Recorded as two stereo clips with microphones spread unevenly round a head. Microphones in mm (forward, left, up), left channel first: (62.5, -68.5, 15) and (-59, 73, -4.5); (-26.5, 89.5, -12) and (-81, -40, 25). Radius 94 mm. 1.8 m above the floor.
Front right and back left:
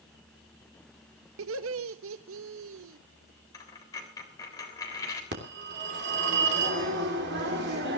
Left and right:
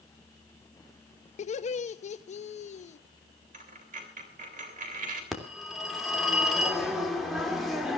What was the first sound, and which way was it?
Laughter, 110° left.